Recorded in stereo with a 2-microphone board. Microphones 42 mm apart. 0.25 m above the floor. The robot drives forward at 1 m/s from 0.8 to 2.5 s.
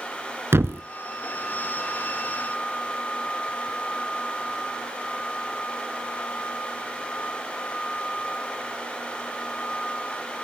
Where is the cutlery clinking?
No cutlery clinking in this recording.